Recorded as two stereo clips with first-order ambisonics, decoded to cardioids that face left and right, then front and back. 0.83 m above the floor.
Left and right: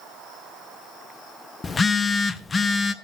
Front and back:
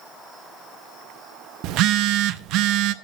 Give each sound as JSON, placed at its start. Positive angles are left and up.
{"t": 1.6, "sound": "a phone buzzing", "azimuth_deg": 165, "distance_m": 0.6}